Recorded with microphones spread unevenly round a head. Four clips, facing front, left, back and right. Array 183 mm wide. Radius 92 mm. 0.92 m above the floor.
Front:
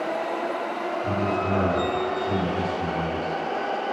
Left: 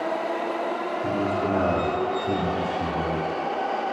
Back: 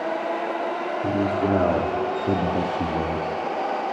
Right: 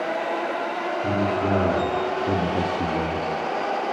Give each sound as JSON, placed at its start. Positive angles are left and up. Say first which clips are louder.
{"t": 1.0, "sound": "a man speaking", "louder": "right 2 dB, back 4 dB", "azimuth_deg": -175, "distance_m": 2.5}